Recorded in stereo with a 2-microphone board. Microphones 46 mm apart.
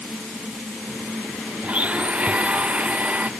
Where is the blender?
30° right (ahead or behind).